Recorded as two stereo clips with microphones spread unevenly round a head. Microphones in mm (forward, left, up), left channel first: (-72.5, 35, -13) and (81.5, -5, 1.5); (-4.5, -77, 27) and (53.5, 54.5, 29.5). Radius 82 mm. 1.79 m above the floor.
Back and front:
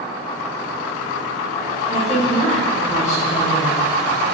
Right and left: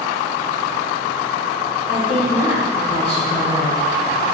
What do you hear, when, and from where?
1.9 s a woman speaking: 140° right, 1.7 m